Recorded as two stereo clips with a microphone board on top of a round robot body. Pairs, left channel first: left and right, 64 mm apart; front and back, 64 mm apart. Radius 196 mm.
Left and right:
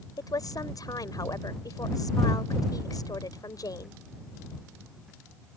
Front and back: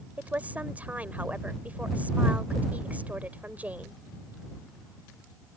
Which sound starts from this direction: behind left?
A woman speaking, at 0.2 s.